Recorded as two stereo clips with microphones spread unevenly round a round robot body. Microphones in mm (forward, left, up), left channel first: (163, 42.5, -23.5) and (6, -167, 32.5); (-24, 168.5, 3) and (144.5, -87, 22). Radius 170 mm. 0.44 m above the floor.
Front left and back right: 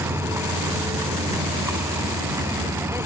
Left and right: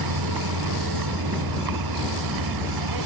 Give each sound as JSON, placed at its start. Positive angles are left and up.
{"t": 0.0, "sound": "a vehicle", "azimuth_deg": -45}